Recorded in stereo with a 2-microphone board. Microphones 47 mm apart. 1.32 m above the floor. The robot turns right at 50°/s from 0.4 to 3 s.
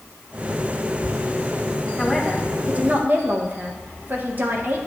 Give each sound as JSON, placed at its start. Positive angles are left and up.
{"t": 2.0, "sound": "a man speaking", "azimuth_deg": 170, "distance_m": 1.3}